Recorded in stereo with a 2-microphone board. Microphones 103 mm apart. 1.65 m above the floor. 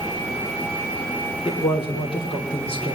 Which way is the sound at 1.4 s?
65° left (ahead or behind).